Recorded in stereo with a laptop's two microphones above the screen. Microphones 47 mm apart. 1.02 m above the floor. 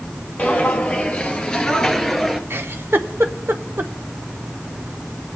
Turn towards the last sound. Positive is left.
turn(degrees=-60)  # may be behind; listen again after turning